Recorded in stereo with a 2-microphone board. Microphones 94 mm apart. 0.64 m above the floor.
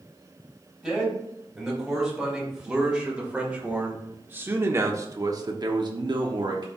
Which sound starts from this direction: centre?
A man speaking, at 0.8 s.